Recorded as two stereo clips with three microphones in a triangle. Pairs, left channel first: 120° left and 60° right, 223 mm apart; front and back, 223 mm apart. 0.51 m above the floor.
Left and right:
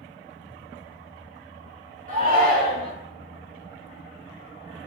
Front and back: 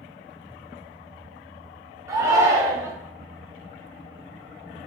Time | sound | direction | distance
2.1 | a shout | 105° right | 1.3 m